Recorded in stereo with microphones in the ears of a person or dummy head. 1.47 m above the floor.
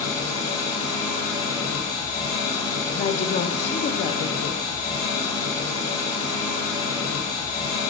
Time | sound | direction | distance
0.0 | an engine running | 30° left (ahead or behind) | 2 m
3.0 | a woman speaking | 40° left (ahead or behind) | 0.6 m